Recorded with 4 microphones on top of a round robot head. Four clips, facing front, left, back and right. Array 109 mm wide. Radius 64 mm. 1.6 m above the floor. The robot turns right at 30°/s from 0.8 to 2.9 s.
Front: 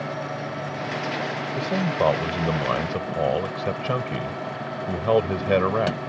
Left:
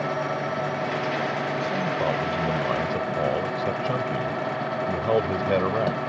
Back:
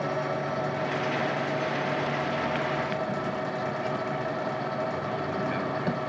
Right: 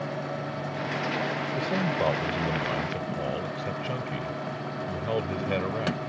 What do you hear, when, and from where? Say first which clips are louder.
1.6 s a man speaking: left 2 dB, front 5 dB; 20° right; by 6.0 s 20° left